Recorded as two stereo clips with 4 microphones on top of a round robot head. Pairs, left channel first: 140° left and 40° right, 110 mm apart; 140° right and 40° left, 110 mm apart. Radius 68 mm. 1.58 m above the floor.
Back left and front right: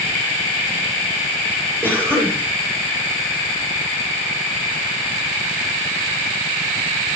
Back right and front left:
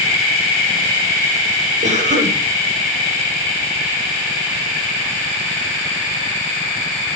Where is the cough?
25° left, 8 m.